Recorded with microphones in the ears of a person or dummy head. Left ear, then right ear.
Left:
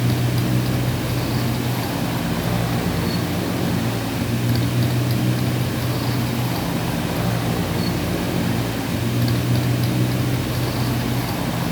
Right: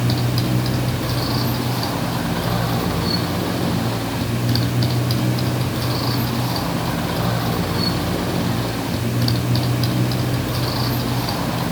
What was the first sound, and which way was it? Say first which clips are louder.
A motorcycle: right 1 dB; 25° right (ahead or behind).